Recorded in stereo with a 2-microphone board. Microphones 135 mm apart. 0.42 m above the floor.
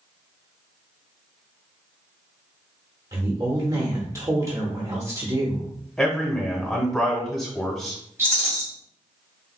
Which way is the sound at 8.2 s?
20° right (ahead or behind).